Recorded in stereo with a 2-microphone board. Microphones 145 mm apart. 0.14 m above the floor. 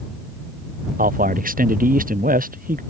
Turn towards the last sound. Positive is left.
turn(degrees=-75)  # may be behind; listen again after turning